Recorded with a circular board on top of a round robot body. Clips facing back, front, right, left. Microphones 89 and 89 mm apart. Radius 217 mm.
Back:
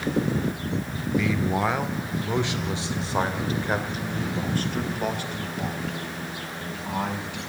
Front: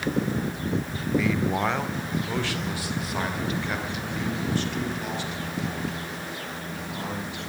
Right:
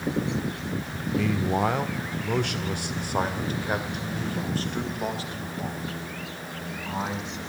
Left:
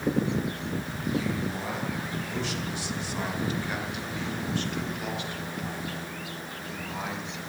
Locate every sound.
1.2 s a man speaking: 85° right, 1.9 m; by 7.4 s 150° right, 4.5 m